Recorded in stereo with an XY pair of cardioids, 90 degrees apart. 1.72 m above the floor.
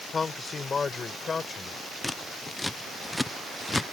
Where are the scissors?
10° left.